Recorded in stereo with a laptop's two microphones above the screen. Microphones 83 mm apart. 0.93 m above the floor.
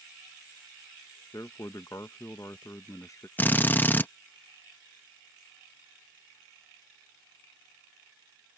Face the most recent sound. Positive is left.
turn(degrees=25)  # may be behind; listen again after turning